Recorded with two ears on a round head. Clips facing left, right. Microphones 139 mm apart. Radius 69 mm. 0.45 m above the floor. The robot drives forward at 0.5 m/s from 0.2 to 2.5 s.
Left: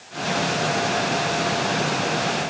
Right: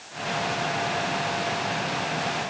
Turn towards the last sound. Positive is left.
No sound to turn to.